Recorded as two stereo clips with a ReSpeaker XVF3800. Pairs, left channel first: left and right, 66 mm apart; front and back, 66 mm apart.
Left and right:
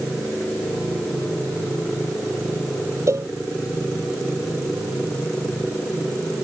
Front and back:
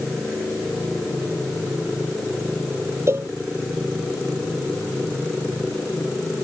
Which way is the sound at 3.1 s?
130° right.